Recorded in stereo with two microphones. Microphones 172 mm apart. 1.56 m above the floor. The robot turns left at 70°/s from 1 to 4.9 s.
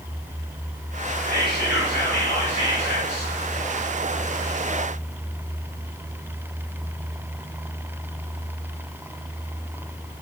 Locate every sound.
1.2 s whispering: 125° left, 1.4 m; by 3.3 s 20° right, 1.4 m